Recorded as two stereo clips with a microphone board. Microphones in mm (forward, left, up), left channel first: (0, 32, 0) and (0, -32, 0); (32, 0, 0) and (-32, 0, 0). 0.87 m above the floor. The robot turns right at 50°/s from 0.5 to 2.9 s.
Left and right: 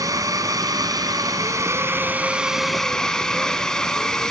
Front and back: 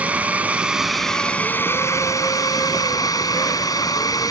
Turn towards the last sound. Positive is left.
turn(degrees=10)